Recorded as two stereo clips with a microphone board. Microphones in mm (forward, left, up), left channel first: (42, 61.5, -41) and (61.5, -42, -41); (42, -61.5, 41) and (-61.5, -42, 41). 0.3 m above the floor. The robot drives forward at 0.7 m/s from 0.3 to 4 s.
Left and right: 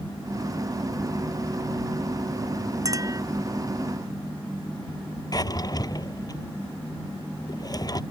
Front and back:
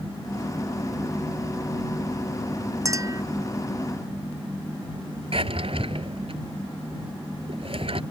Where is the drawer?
150° left.